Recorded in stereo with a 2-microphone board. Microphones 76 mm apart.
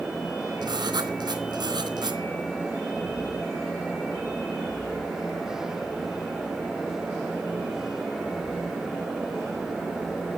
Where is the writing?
70° right (ahead or behind), 3 m.